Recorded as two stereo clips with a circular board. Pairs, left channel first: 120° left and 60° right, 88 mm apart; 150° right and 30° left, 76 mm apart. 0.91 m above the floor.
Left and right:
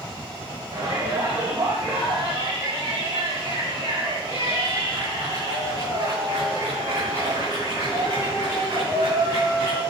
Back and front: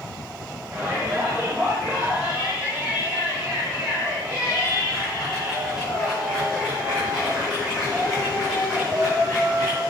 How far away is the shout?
About 4 m.